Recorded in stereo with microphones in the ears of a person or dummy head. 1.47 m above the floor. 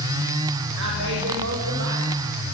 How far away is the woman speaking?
About 8.5 m.